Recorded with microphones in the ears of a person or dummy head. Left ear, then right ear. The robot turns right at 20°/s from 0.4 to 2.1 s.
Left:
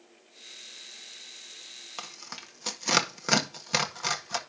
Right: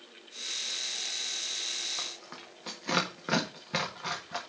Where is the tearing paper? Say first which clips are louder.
Right 2 dB; 85° left, 1.6 m.